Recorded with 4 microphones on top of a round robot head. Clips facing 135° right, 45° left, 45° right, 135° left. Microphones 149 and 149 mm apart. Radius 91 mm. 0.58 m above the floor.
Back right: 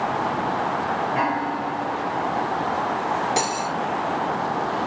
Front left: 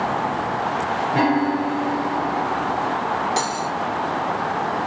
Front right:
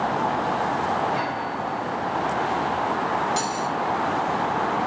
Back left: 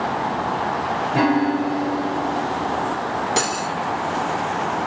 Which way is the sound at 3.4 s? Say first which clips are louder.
Even, back left 2 dB; 155° left.